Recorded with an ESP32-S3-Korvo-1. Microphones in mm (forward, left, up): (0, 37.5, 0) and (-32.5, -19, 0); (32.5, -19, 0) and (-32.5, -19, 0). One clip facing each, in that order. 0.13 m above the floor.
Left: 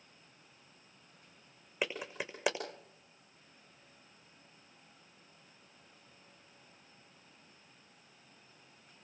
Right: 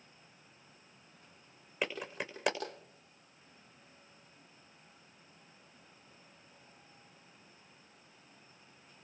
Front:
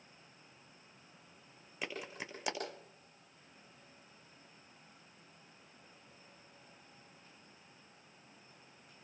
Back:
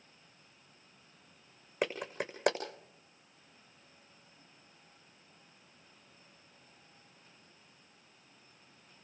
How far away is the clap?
About 6.5 m.